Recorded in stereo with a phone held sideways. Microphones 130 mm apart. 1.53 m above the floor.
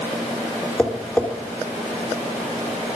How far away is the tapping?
About 3.5 m.